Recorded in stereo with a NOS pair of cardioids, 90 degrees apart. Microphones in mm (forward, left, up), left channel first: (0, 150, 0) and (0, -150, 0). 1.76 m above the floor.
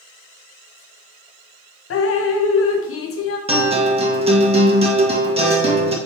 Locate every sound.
1.9 s dripping: 50° left, 1.1 m
3.5 s a guitar: 20° right, 1.9 m